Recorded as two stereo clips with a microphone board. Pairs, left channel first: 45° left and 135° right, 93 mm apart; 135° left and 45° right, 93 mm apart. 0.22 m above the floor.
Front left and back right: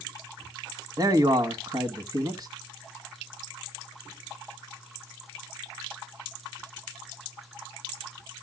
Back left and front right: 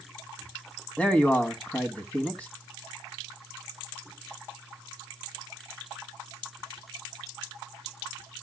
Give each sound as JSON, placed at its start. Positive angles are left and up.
{"t": 1.0, "sound": "a man speaking", "azimuth_deg": -155, "distance_m": 1.5}